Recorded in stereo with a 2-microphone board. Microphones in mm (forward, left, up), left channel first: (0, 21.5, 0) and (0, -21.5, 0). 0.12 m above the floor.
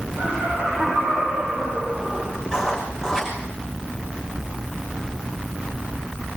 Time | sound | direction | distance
0.2 | laughter | 55° right (ahead or behind) | 10 m
2.5 | writing | 10° right (ahead or behind) | 6 m